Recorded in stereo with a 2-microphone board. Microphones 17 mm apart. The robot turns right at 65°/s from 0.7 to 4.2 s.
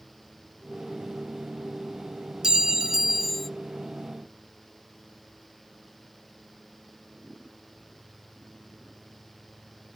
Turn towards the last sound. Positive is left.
turn(degrees=45)